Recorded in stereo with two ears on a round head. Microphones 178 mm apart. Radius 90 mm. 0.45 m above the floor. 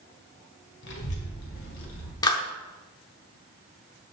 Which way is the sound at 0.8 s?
60° left (ahead or behind).